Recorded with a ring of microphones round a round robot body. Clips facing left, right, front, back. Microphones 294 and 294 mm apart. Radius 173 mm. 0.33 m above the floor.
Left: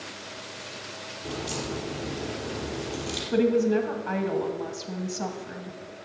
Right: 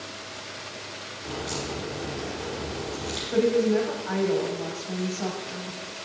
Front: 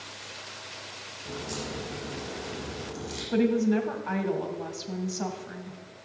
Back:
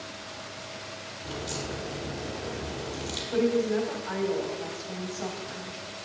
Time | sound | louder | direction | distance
1.2 | a crack | even, even | 145° left | 5.5 m
3.3 | a woman speaking | even, front 1 dB | 40° left | 2 m